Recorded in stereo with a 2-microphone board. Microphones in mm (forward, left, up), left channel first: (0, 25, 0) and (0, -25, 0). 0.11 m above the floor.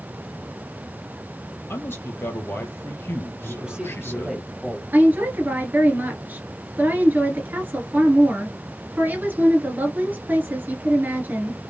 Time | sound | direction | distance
1.7 | a man speaking | 50° left (ahead or behind) | 2 m
3.4 | a man speaking | 15° right (ahead or behind) | 2.5 m
4.9 | a woman speaking | 35° right (ahead or behind) | 2 m